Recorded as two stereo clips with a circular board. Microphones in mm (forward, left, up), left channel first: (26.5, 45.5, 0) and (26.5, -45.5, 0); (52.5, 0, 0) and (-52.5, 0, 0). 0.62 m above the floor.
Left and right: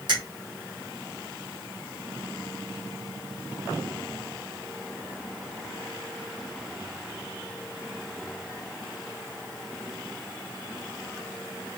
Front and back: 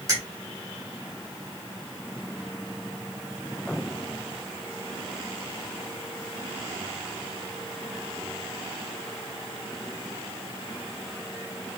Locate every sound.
0.1 s a finger snap: 120° right, 1.8 m